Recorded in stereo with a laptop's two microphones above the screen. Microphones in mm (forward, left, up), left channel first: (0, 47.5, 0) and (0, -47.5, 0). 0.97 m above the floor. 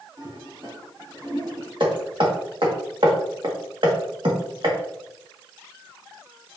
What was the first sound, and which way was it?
A toilet flushing, 45° right (ahead or behind).